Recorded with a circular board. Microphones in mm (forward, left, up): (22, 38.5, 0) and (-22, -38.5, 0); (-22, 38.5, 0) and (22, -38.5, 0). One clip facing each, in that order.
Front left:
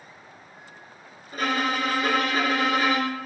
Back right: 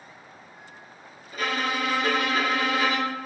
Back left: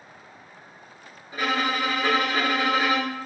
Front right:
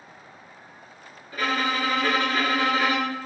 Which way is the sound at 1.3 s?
60° left.